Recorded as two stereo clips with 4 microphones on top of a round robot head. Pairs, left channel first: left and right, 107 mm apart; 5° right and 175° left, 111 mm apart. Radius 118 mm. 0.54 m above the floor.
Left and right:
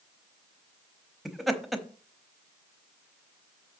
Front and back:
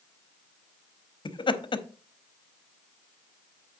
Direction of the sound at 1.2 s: Straight ahead.